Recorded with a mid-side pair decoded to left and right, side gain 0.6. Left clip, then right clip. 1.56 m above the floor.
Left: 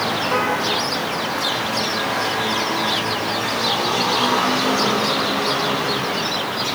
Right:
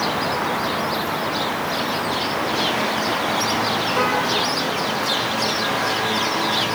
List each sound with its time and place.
Only background noise.